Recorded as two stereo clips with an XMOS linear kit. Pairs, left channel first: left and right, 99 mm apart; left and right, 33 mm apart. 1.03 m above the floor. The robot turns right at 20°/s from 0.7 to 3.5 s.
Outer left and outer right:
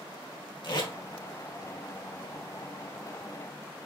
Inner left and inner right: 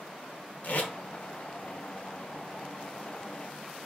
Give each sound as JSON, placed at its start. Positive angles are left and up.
{"t": 0.6, "sound": "tape being pulled", "side_deg": 55, "distance_m": 1.3}